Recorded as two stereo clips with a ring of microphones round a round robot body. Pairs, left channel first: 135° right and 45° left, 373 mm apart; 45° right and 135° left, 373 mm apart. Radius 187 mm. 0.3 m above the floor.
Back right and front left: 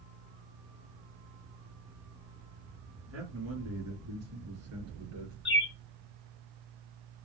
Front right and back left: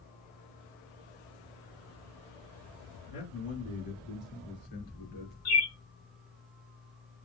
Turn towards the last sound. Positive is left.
turn(degrees=-75)